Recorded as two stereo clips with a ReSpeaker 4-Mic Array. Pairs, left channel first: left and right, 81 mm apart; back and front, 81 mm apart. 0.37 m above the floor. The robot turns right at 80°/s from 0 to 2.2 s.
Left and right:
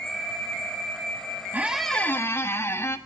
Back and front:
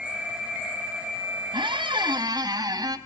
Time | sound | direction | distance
1.5 | a squeak | 20° right | 0.8 m